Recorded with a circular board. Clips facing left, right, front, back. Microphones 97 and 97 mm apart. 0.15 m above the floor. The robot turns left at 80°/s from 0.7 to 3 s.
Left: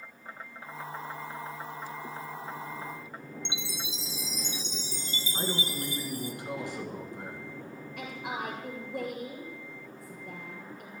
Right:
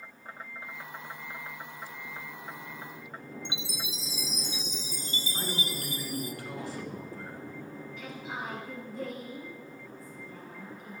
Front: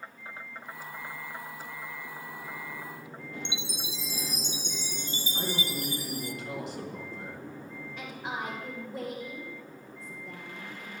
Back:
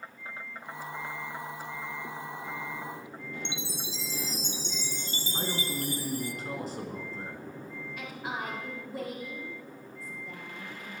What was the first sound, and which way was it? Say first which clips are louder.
A chime: even, even; 60° left.